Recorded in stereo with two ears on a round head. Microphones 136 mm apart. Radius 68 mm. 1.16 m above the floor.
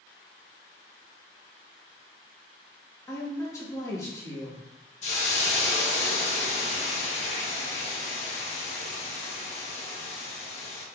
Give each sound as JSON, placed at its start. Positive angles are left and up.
{"t": 3.1, "sound": "a woman speaking", "side_deg": 20, "distance_m": 1.6}
{"t": 5.0, "sound": "a hiss", "side_deg": 50, "distance_m": 1.0}